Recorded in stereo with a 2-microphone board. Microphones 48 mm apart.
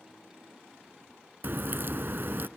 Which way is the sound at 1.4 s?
45° right (ahead or behind).